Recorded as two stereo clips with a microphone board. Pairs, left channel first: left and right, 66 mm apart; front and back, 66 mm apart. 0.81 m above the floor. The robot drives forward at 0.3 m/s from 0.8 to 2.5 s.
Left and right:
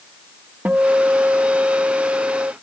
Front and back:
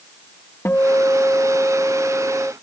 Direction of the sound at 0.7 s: 35° right.